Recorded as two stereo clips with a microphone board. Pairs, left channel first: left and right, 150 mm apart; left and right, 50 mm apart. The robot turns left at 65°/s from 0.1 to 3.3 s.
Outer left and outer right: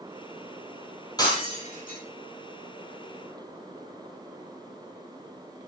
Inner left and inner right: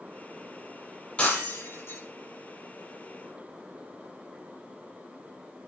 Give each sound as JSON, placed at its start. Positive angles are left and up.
{"t": 1.2, "sound": "breaking glass", "side_deg": 25, "distance_m": 8.0}